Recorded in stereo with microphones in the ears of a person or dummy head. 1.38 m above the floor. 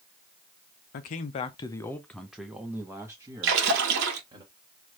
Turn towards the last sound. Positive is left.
turn(degrees=-65)  # may be behind; listen again after turning